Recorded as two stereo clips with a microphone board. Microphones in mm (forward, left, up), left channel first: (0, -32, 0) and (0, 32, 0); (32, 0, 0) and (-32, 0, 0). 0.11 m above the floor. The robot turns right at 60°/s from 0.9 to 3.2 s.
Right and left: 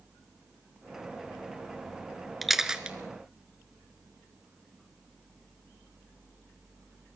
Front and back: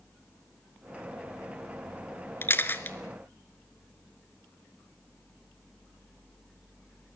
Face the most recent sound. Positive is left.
turn(degrees=50)